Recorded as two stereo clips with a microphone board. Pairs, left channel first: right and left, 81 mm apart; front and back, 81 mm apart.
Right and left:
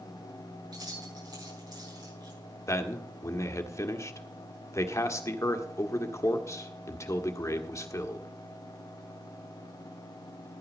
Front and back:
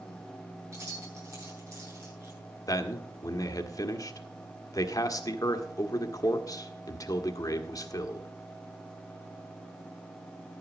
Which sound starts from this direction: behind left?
Keys jangling, at 0.7 s.